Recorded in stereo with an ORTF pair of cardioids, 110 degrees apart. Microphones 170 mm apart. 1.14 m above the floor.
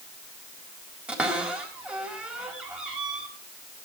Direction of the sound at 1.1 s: 5° right.